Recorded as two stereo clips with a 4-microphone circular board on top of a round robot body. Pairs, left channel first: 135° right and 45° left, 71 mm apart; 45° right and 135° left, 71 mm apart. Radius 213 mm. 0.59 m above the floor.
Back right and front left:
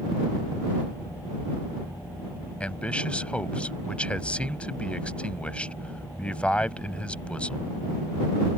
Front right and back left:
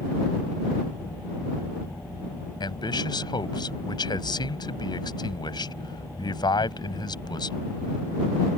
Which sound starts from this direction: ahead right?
A man speaking, at 2.6 s.